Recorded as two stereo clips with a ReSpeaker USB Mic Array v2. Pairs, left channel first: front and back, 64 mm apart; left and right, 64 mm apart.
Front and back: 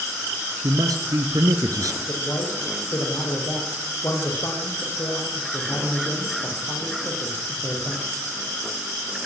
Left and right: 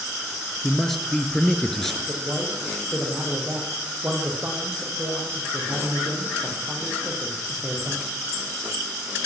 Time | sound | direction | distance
0.6 | a man speaking | 175° left | 3 m
2.1 | a man speaking | 30° right | 9 m